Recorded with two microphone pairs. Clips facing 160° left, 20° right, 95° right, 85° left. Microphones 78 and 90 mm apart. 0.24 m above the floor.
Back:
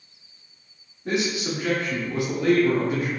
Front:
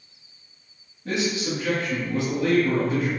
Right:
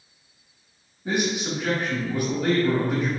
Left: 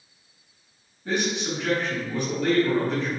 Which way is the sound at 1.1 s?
145° right.